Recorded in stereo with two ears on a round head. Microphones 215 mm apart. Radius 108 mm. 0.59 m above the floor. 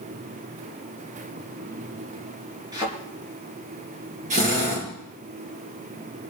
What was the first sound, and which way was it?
A thud, 20° right (ahead or behind).